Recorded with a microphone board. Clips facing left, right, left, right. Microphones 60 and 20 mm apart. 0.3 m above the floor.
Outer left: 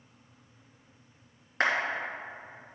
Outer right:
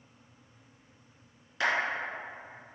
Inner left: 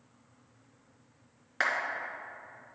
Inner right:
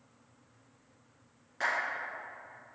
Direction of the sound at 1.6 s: 50° left (ahead or behind).